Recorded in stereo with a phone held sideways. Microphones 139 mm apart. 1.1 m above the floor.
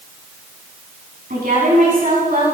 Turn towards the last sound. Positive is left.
turn(degrees=-90)